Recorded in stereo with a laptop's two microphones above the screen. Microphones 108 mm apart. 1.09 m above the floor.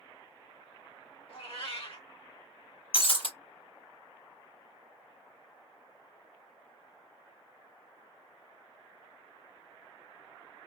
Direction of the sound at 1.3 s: 55° left (ahead or behind).